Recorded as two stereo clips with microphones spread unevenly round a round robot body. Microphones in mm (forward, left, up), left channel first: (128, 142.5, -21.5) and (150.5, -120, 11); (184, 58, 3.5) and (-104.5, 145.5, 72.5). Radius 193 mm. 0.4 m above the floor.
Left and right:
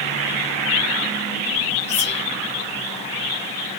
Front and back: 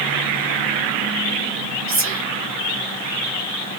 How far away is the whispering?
About 1.0 m.